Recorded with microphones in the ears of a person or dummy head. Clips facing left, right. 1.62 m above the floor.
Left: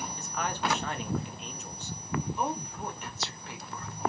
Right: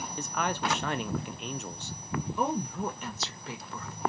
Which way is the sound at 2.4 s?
75° right (ahead or behind).